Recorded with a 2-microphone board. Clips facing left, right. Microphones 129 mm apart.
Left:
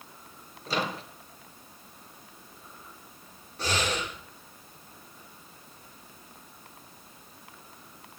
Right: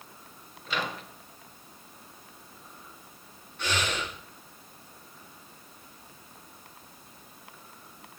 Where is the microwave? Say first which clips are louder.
Left 2 dB; 35° left (ahead or behind), 1.8 m.